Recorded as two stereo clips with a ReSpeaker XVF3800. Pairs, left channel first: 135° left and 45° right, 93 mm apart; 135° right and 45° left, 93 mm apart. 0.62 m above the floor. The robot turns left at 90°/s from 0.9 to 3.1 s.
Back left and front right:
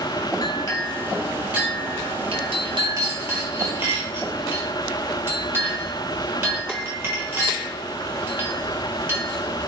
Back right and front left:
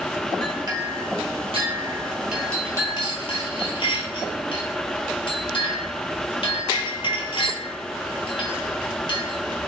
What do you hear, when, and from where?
0.4 s a clink: 90° left, 1.4 m; by 9.4 s 110° right, 1.4 m